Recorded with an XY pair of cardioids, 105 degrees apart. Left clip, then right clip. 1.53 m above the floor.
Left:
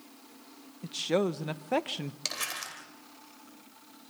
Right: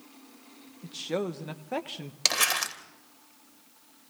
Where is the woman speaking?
30° left, 1.3 m.